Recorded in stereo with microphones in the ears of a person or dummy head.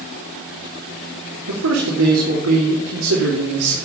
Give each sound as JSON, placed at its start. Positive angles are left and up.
{"t": 1.5, "sound": "a man speaking", "side_deg": -75, "distance_m": 3.0}